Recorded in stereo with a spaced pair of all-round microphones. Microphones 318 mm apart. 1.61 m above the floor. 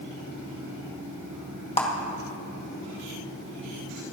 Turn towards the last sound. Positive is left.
turn(degrees=20)  # may be behind; listen again after turning